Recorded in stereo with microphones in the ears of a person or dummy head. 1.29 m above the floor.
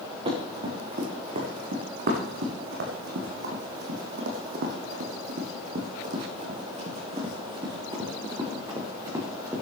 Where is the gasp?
No gasp in this recording.